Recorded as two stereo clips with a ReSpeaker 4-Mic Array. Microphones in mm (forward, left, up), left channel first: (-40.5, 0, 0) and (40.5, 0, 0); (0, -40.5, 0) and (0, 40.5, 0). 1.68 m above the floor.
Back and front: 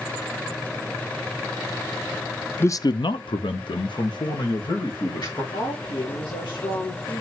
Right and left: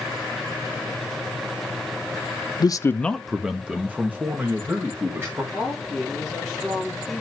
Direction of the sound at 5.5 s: 170° left.